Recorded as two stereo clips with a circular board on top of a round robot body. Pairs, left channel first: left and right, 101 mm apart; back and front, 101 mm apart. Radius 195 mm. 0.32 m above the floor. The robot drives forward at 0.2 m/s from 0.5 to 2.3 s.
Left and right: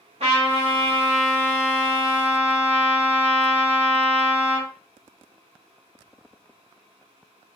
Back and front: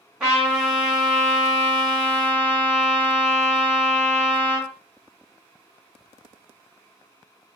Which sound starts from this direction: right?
A trumpet, at 0.2 s.